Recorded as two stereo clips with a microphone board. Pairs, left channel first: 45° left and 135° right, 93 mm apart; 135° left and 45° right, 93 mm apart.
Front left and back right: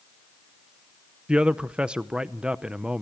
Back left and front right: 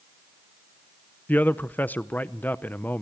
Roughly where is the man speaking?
Behind.